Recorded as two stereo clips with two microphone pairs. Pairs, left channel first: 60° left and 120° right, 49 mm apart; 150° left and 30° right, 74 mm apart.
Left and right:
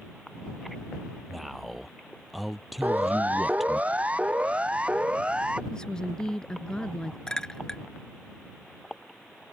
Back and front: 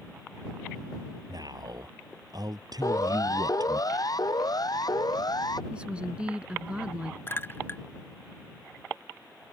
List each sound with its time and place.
1.3 s a man speaking: 30° right
2.8 s a siren: 175° right; by 5.6 s 170° left
5.7 s a woman speaking: 15° left
7.3 s a clink: 120° left